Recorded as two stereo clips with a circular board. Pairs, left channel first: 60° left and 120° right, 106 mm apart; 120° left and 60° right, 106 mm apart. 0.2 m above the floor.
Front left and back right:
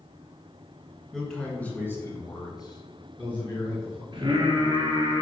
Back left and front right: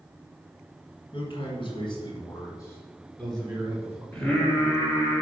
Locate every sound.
1.1 s a man speaking: 145° left, 3 m; by 4.0 s 20° left, 3 m
4.1 s singing: 160° right, 2.5 m